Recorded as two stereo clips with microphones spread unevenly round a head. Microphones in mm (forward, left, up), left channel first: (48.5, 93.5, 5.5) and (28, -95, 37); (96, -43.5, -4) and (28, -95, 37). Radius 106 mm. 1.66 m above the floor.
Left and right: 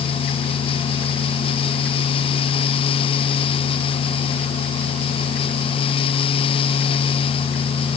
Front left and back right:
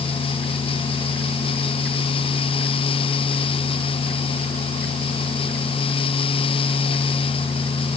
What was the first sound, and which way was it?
Only background noise.